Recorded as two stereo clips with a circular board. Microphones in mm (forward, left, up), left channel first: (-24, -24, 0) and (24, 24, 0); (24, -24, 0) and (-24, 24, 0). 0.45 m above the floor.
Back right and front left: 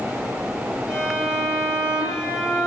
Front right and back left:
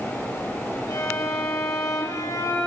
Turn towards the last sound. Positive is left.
turn(degrees=-30)